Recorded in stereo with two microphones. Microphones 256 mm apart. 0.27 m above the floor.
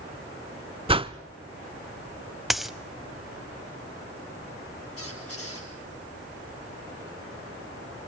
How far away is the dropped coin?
About 0.5 m.